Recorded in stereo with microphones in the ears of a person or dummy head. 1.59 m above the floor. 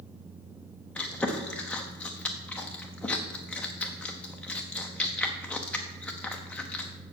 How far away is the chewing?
About 0.8 m.